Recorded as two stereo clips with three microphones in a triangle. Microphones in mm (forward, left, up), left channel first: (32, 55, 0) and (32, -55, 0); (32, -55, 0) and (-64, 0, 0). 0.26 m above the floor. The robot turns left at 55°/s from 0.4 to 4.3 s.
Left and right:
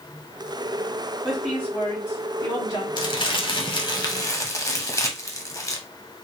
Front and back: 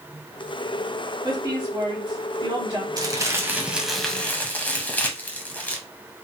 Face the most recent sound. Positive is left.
turn(degrees=40)